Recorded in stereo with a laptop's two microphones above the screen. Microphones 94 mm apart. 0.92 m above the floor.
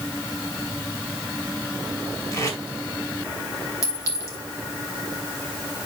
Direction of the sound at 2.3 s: 30° left (ahead or behind).